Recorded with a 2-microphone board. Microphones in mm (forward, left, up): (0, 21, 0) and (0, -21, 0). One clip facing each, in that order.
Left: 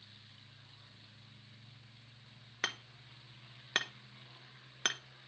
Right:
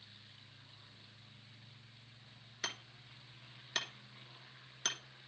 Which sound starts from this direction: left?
Hammering, at 2.6 s.